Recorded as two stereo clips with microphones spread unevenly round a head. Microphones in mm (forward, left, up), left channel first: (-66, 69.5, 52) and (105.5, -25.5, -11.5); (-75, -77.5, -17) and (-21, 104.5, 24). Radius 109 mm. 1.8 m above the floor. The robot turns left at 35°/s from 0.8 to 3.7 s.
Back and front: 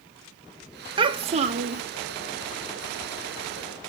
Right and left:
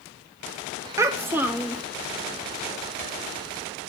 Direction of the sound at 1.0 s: 50° left.